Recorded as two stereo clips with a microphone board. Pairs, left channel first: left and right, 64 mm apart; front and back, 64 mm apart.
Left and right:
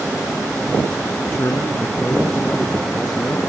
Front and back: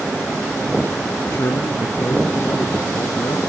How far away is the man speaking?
About 3.5 m.